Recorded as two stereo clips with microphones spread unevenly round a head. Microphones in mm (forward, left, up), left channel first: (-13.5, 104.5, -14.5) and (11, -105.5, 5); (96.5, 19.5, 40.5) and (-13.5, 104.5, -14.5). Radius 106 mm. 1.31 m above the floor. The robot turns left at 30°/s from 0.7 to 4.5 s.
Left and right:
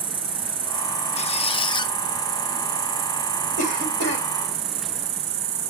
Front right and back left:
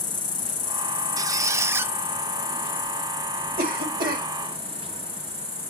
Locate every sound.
0.0 s an insect: 15° right, 1.3 m; by 5.7 s 130° right, 1.3 m
1.2 s a squeak: 60° left, 0.5 m; by 1.9 s 35° left, 0.5 m
3.6 s a cough: 155° left, 3 m; by 4.3 s 130° left, 3 m